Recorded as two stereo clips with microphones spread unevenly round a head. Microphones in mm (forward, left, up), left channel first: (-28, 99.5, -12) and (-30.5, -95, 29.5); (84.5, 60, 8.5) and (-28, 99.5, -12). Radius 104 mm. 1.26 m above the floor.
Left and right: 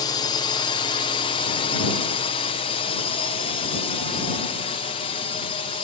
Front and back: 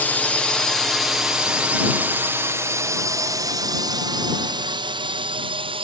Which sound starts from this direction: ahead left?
A drone, at 0.0 s.